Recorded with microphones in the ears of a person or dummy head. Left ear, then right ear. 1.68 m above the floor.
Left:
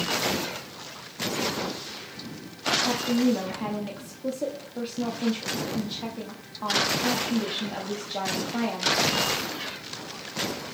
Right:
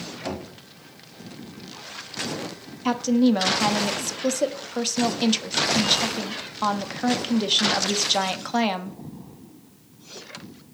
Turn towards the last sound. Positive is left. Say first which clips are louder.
# right 3 dB
turn(degrees=-60)  # may be behind; listen again after turning